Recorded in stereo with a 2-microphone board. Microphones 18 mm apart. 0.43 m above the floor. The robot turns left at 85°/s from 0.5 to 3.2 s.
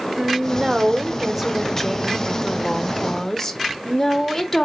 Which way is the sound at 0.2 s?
80° right.